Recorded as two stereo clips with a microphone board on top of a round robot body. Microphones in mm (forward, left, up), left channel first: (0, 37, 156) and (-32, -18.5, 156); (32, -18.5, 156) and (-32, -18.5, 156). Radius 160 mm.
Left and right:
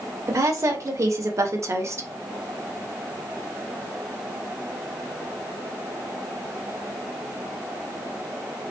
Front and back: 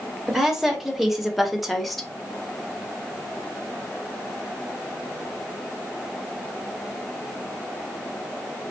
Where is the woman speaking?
95° right, 2 m; by 2.1 s 85° right, 1.3 m.